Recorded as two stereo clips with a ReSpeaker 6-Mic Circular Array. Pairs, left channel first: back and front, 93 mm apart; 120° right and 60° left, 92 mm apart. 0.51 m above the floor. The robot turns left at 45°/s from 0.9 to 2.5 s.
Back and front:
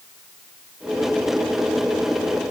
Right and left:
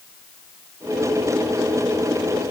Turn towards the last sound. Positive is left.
No sound to turn to.